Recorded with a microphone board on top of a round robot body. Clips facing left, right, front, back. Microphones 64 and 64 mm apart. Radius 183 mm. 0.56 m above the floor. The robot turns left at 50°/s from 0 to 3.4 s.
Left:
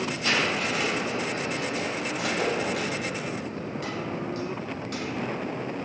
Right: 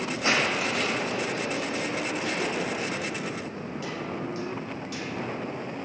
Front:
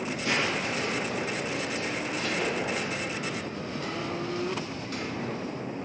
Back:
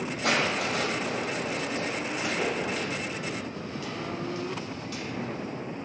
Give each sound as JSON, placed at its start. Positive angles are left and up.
{"t": 0.2, "sound": "crushing", "azimuth_deg": -155, "distance_m": 2.5}